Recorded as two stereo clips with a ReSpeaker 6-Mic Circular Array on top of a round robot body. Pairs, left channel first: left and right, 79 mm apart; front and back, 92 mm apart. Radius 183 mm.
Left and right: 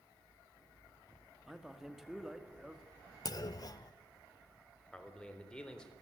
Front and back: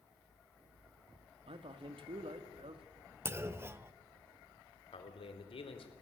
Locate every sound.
1.5 s a man speaking: 175° right, 2 m
3.2 s a clunk: 120° left, 1.1 m
4.9 s a man speaking: 10° left, 4 m